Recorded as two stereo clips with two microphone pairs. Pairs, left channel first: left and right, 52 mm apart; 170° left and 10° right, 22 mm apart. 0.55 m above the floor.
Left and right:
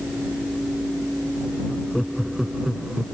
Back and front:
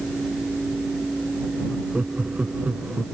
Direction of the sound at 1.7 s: 5° left.